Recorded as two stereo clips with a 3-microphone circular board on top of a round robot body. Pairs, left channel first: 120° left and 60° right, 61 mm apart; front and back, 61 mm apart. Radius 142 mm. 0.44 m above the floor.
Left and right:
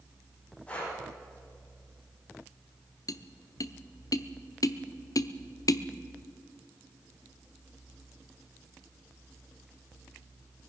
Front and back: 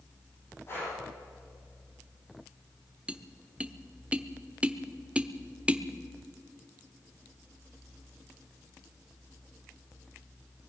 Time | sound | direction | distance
0.7 | breathing | 50° left | 9.5 m
3.1 | tapping | 110° left | 0.9 m